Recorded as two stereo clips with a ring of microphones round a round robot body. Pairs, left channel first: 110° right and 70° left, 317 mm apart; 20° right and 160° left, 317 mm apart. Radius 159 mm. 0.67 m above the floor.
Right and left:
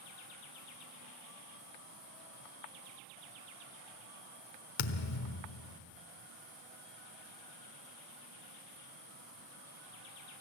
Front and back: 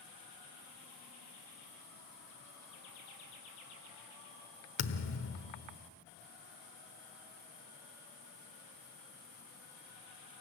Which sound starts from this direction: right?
A thud, at 4.8 s.